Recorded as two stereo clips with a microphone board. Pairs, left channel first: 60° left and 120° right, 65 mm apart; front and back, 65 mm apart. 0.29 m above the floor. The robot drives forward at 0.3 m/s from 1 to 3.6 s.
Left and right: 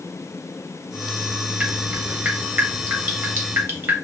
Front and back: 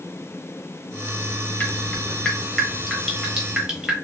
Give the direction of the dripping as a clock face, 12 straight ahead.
2 o'clock.